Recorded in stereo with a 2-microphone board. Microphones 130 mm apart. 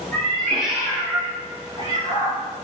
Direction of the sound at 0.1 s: 10° left (ahead or behind).